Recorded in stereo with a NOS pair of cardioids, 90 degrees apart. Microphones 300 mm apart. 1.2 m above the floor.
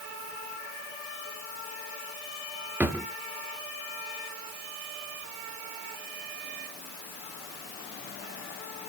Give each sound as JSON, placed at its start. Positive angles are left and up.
{"t": 2.8, "sound": "a drawer", "azimuth_deg": -5, "distance_m": 0.9}